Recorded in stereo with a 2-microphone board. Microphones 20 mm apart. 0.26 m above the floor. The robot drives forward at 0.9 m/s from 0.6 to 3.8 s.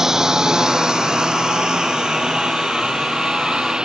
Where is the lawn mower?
25° right (ahead or behind); by 3.9 s 45° right (ahead or behind).